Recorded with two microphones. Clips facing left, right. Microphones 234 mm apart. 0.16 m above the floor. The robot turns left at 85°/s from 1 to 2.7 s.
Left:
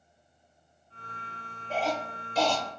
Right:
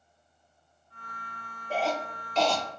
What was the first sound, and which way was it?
A cough, 10° right (ahead or behind).